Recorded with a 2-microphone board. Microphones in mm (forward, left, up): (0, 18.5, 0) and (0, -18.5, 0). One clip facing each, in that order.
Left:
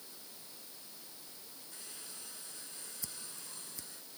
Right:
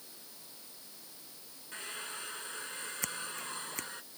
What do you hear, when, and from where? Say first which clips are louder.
1.7 s a hair dryer: right 12 dB; 50° right (ahead or behind)
3.0 s scissors: right 12 dB; 65° right (ahead or behind)